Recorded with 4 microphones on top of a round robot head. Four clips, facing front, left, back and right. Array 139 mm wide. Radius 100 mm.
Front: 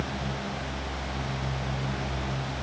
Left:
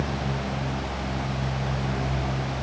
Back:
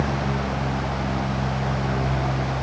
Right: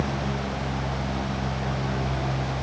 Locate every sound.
Only background noise.